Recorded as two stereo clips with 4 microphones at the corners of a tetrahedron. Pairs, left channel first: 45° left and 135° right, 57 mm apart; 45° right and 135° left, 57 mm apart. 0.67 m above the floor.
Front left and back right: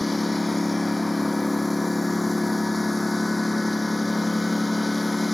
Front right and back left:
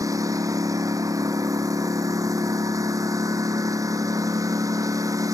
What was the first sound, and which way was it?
A lawn mower, 135° left.